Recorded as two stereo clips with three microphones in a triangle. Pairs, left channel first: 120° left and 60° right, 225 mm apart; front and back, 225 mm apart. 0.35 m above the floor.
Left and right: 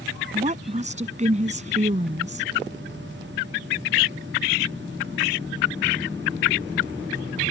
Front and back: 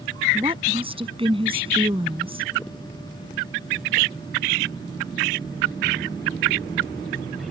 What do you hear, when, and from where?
0.3 s a woman speaking: 115° right